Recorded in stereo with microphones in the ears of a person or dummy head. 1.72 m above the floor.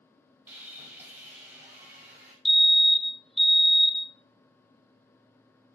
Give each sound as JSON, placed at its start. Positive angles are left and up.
{"t": 0.5, "sound": "sawing", "side_deg": -10, "distance_m": 5.5}
{"t": 2.5, "sound": "a fire alarm", "side_deg": 0, "distance_m": 1.1}